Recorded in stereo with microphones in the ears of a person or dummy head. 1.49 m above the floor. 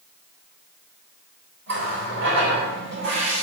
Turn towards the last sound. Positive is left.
turn(degrees=-70)  # may be behind; listen again after turning